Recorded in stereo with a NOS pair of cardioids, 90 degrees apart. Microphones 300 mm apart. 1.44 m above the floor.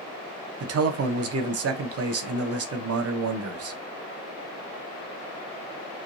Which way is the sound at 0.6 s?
55° right.